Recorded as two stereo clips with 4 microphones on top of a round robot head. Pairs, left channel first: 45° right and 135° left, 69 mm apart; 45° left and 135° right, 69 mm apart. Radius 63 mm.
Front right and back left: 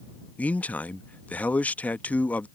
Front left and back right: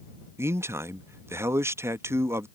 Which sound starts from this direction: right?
A man speaking, at 0.4 s.